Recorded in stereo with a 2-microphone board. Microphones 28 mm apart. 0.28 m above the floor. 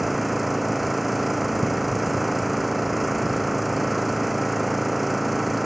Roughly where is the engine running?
Centre.